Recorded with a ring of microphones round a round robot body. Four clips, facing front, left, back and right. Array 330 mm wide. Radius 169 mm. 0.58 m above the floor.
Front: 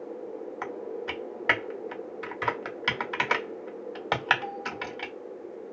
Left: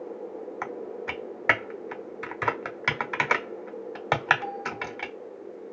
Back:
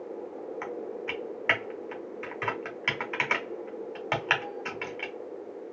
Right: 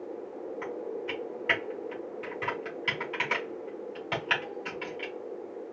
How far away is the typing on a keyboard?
About 0.5 m.